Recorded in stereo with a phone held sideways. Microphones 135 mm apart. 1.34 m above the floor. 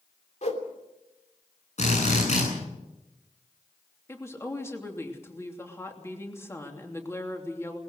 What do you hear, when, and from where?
0.4 s a whoosh: 55° left (ahead or behind), 3 m
1.8 s a drill: 55° left (ahead or behind), 9.5 m
4.1 s a woman speaking: 20° left (ahead or behind), 3 m